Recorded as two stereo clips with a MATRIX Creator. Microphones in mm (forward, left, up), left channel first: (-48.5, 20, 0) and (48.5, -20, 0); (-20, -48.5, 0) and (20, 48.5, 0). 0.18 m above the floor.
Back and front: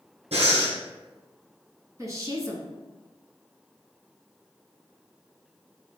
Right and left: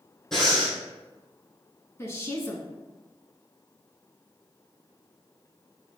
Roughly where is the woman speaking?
Ahead right.